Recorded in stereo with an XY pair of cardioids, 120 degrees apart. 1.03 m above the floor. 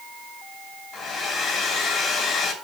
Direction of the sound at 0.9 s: 50° left.